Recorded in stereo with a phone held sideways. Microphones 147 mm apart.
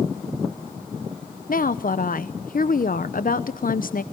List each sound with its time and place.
1.5 s a woman speaking: 75° left (ahead or behind), 0.8 m